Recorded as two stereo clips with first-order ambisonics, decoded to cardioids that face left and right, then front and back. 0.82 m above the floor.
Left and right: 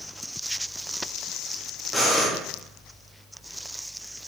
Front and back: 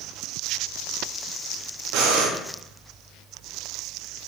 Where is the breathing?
175° left, 0.7 m.